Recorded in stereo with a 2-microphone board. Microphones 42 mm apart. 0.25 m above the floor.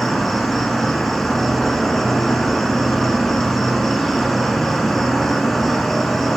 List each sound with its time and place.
0.0 s an insect: 5° left (ahead or behind), 1.2 m